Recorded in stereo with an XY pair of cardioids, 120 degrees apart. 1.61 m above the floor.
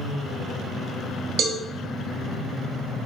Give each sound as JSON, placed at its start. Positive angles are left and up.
{"t": 1.4, "sound": "a cowbell", "azimuth_deg": -60, "distance_m": 0.6}